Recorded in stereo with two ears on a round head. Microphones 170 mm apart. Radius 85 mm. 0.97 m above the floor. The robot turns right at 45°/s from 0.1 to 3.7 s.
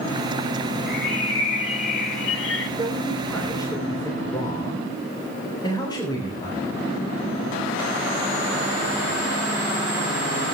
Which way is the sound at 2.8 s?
20° right.